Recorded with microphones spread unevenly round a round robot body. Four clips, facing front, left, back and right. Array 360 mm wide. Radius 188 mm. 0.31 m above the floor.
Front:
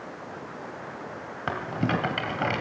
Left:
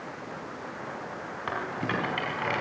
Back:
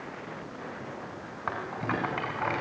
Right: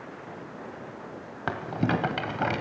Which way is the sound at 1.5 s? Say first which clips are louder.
Right 4 dB, front 4 dB; 55° right.